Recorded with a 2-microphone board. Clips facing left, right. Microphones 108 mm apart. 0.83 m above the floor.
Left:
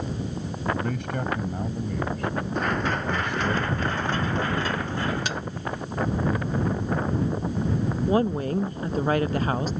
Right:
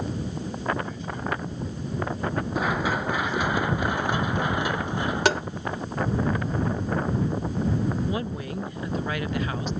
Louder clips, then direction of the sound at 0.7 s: Left 3 dB; 70° left (ahead or behind).